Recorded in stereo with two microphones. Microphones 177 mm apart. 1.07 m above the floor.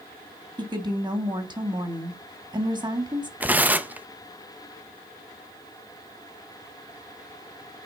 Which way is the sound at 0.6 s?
25° right (ahead or behind).